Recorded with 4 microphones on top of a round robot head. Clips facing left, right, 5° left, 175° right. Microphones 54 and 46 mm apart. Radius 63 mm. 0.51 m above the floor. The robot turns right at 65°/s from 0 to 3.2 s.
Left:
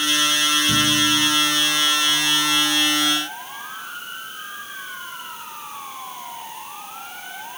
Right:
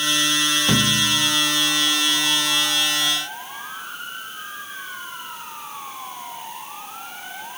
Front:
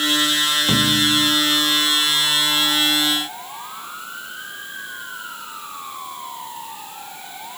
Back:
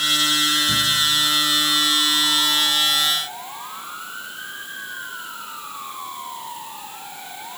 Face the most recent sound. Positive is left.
turn(degrees=110)